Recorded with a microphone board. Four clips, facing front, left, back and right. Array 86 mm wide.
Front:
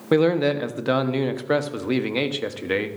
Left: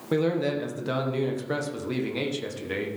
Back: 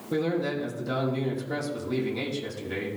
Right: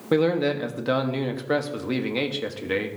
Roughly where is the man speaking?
Ahead.